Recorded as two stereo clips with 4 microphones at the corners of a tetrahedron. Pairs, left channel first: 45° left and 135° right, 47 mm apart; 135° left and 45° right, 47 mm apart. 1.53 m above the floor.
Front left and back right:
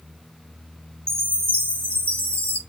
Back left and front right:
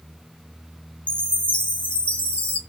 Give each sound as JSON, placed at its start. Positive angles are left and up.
{"t": 1.1, "sound": "a chime", "azimuth_deg": -165, "distance_m": 0.5}